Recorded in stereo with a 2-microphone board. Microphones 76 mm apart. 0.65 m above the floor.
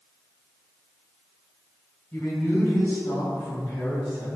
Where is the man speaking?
25° left (ahead or behind), 3 m; by 4.4 s 35° left (ahead or behind), 5 m.